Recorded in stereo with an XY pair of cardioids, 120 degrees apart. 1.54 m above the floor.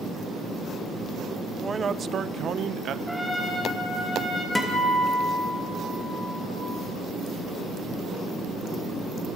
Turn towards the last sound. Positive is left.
turn(degrees=15)